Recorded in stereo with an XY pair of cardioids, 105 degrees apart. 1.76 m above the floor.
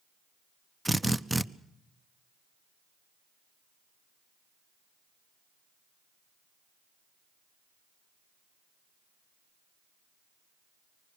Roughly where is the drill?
Ahead.